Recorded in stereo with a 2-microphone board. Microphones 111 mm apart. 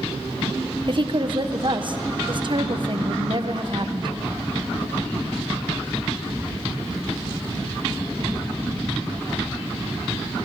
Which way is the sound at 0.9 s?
45° right (ahead or behind).